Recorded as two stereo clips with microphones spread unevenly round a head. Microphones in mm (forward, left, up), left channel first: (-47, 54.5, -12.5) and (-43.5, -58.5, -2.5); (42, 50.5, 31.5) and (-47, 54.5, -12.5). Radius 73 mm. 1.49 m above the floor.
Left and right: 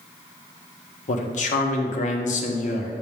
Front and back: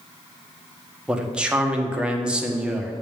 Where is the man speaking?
100° left, 1.2 m.